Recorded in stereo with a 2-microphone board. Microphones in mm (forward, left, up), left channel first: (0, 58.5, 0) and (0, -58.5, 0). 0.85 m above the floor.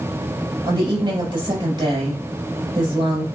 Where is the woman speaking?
45° right (ahead or behind), 5.5 m.